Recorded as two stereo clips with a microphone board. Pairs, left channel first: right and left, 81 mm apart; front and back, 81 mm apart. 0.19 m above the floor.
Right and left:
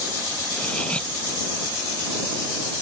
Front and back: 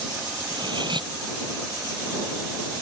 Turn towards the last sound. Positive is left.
turn(degrees=-165)